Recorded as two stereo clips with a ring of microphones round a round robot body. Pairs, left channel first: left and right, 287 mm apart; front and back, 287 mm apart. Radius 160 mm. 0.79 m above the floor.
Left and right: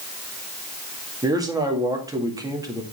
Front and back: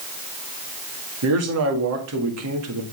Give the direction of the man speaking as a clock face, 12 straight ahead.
6 o'clock.